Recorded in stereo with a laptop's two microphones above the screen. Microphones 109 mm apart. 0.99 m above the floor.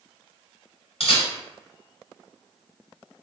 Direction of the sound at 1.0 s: 60° left (ahead or behind).